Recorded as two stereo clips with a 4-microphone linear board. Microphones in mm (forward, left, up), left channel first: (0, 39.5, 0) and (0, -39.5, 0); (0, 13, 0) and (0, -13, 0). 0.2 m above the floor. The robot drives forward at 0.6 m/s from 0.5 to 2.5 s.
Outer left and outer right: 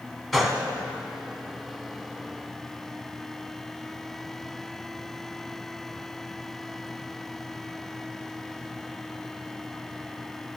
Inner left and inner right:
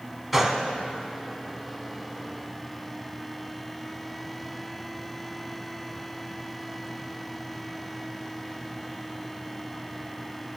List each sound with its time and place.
0.3 s a gunshot: centre (ahead or behind), 0.6 m